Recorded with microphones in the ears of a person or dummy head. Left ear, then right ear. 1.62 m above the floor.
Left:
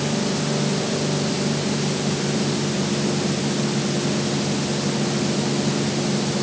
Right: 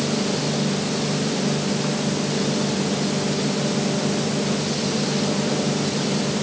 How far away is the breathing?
I don't hear breathing.